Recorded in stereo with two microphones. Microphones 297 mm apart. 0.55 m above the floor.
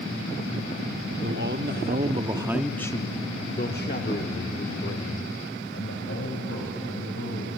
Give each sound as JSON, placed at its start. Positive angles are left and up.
{"t": 1.2, "sound": "a man speaking", "side_deg": -40, "distance_m": 1.2}